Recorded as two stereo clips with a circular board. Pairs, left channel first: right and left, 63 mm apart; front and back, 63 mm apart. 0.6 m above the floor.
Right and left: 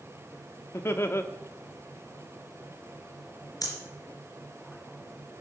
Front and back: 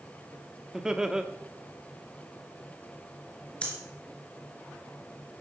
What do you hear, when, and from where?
0.7 s laughter: 105° right, 1.0 m
3.6 s breathing: 70° right, 3 m